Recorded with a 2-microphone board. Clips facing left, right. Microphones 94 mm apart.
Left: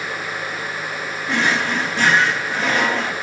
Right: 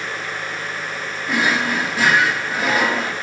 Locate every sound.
1.3 s a drawer: 5° right (ahead or behind), 1.7 m